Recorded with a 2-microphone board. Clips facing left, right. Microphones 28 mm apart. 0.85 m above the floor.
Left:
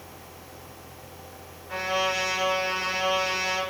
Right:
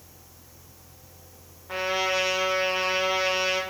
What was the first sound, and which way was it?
A trumpet, 25° right (ahead or behind).